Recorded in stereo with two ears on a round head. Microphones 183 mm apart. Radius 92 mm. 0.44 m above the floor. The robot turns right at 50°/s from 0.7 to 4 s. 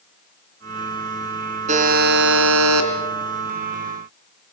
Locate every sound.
1.7 s a buzzer: 145° right, 2.5 m; by 2.9 s 85° right, 2.5 m